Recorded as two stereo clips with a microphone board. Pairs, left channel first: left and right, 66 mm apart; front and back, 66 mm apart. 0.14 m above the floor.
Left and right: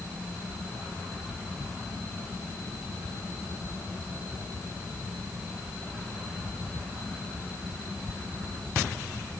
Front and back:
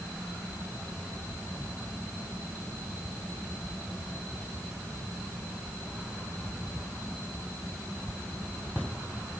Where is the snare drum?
I don't hear a snare drum.